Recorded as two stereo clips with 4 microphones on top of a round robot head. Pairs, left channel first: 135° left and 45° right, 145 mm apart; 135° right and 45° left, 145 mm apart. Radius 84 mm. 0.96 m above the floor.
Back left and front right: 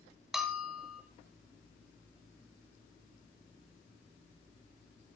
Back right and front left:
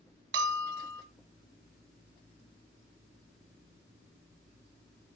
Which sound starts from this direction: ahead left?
A bell, at 0.3 s.